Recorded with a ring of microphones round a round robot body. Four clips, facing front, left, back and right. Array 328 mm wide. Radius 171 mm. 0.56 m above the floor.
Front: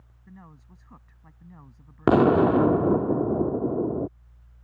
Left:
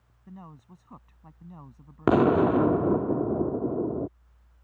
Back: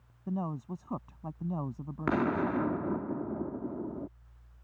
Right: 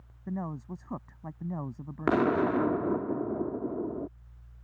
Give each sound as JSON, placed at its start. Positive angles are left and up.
{"t": 0.3, "sound": "a man speaking", "azimuth_deg": -140}
{"t": 2.1, "sound": "an explosion", "azimuth_deg": 30}